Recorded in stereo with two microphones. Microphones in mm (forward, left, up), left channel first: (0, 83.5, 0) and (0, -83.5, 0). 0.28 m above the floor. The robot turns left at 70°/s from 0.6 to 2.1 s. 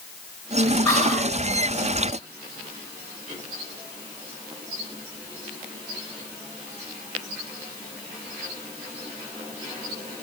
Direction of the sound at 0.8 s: 15° left (ahead or behind).